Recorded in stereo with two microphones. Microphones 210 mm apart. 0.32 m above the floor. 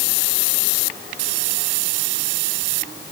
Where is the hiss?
I don't hear a hiss.